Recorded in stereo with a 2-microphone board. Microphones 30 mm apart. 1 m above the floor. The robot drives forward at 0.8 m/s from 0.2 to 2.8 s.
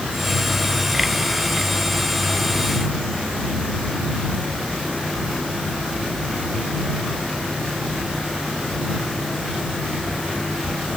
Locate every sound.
Only background noise.